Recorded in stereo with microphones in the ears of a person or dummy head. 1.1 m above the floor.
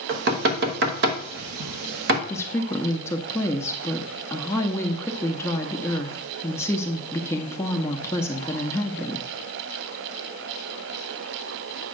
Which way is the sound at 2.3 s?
5° left (ahead or behind).